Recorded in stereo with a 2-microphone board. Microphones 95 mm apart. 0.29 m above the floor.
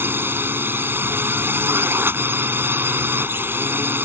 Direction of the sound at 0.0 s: 25° right (ahead or behind).